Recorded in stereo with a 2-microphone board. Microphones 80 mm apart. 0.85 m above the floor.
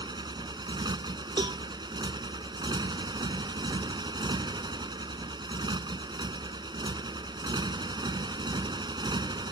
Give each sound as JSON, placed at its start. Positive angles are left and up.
{"t": 0.0, "sound": "a motorcycle", "side_deg": -70}
{"t": 1.4, "sound": "a cowbell", "side_deg": -80}